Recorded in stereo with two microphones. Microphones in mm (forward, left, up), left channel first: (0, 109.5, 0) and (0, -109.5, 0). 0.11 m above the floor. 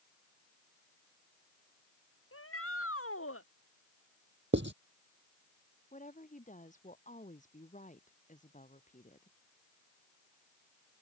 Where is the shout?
85° left; by 3.5 s 80° left.